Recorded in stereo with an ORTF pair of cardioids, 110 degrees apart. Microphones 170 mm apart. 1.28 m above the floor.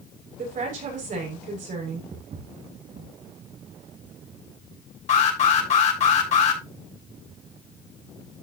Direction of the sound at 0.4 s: 50° right.